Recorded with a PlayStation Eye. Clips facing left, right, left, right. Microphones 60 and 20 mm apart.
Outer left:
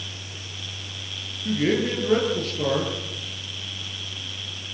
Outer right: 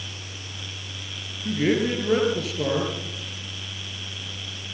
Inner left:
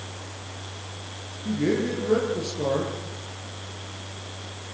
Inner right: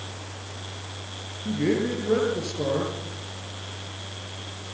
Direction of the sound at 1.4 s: 5° right (ahead or behind).